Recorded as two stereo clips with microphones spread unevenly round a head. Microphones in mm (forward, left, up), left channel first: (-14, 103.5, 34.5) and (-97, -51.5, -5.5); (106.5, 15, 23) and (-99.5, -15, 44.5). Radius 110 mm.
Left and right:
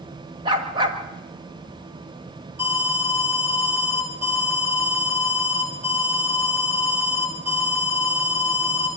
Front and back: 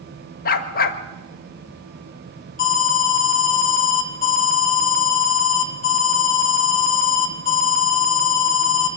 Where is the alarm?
40° right, 4.5 m.